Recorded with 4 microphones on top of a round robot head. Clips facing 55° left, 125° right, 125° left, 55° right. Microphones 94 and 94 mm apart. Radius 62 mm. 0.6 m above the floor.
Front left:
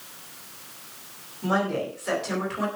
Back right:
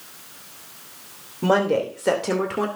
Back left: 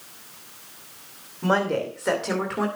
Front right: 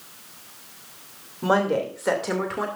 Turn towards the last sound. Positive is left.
turn(degrees=-145)